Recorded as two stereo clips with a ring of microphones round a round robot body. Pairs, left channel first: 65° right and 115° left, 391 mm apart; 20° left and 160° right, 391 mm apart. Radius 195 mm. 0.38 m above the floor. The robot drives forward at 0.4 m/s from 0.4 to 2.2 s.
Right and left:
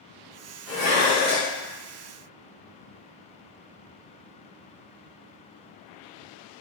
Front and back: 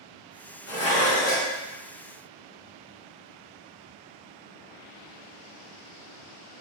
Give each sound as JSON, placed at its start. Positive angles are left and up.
{"t": 0.7, "sound": "dishes clattering", "azimuth_deg": 65, "distance_m": 1.9}